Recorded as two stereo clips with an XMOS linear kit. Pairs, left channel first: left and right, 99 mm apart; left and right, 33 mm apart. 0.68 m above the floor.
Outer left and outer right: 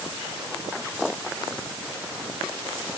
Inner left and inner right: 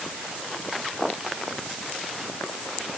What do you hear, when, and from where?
Only background noise.